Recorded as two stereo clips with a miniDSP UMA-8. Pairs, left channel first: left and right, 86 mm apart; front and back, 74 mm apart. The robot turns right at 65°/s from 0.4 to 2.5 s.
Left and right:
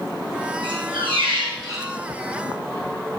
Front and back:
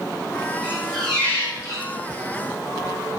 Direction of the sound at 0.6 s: 110° right.